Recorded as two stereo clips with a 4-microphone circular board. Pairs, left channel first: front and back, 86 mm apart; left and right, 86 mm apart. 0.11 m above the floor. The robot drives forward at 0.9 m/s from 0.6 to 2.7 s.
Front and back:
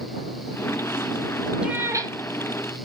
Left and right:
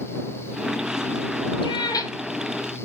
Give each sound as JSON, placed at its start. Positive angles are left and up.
{"t": 1.6, "sound": "a cat meowing", "azimuth_deg": 100, "distance_m": 0.5}